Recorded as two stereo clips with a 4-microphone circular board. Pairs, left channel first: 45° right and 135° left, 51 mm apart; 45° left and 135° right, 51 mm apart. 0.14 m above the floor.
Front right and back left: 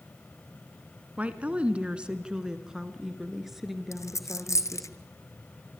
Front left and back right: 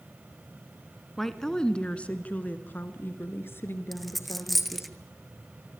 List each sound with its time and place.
1.2 s a woman speaking: 125° left, 1.8 m; by 4.9 s 40° left, 3.5 m
3.9 s a dropped coin: 45° right, 0.9 m